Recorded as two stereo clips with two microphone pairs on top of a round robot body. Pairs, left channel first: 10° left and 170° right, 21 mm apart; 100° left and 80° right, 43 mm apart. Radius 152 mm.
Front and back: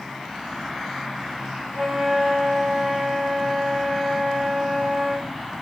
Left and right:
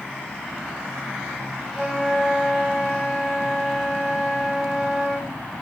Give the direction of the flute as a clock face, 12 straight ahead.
6 o'clock.